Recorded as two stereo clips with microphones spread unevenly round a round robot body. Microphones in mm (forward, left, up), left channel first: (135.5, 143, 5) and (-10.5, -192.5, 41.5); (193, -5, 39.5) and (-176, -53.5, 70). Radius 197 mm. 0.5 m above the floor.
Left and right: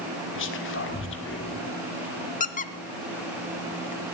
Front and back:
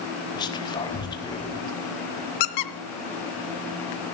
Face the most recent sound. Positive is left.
turn(degrees=0)